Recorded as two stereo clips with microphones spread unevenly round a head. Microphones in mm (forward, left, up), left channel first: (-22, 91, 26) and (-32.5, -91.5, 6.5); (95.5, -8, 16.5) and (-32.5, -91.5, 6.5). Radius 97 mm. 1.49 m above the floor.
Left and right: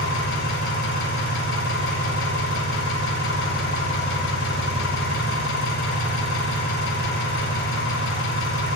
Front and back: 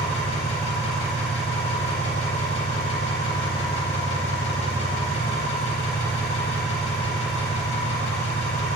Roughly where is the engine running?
Left.